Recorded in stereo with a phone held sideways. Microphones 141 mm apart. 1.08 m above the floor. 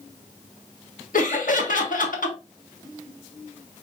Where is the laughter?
70° left (ahead or behind), 1.2 m.